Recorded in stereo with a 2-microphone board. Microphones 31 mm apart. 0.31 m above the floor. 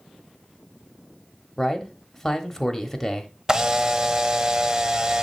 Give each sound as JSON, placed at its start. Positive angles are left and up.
{"t": 1.6, "sound": "a man speaking", "side_deg": 10, "distance_m": 1.1}
{"t": 3.5, "sound": "a camera shutter", "side_deg": -25, "distance_m": 0.5}